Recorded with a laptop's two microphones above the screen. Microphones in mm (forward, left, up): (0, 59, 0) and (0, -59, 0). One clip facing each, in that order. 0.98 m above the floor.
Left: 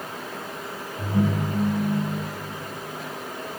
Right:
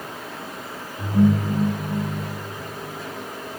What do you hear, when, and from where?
1.0 s a ringtone: 15° left (ahead or behind), 3 m